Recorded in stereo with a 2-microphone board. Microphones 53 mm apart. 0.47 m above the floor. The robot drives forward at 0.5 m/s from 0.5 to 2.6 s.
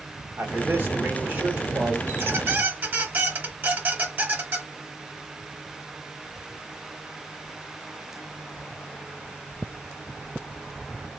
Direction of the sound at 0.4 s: 45° right (ahead or behind).